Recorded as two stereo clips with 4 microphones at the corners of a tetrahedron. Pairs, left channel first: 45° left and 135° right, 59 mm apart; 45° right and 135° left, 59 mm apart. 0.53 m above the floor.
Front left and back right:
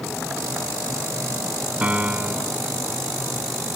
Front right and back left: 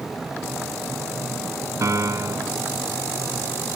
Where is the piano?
160° left.